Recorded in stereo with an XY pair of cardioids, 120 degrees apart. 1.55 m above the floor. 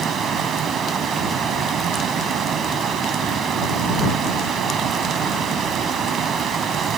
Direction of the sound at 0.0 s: 55° right.